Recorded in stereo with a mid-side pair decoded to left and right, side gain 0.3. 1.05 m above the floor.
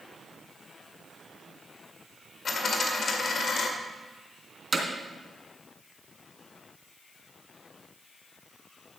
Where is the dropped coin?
65° left, 2 m.